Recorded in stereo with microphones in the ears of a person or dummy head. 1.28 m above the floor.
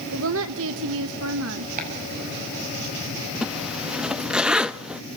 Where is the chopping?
50° right (ahead or behind), 6 m.